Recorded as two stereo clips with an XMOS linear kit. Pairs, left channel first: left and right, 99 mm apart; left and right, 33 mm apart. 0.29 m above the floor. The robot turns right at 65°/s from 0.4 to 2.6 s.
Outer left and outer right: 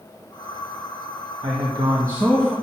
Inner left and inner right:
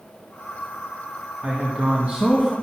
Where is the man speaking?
85° right, 1.9 m; by 2.5 s 10° right, 1.9 m.